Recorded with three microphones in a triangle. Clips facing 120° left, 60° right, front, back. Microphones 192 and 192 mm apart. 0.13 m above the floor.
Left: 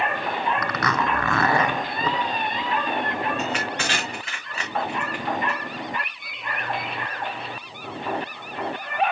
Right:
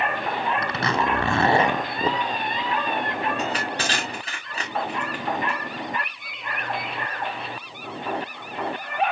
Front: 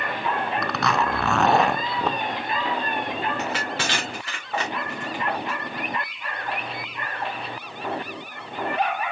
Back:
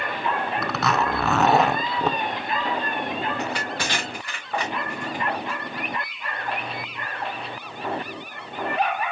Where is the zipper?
95° right, 0.6 m.